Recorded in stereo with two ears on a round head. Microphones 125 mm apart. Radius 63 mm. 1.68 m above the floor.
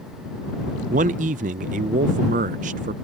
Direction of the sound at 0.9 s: 65° right (ahead or behind).